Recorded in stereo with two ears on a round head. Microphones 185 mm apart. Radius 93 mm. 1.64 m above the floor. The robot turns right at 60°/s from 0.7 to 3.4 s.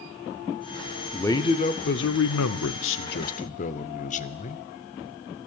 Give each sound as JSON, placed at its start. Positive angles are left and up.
{"t": 1.1, "sound": "a man speaking", "azimuth_deg": 5, "distance_m": 0.6}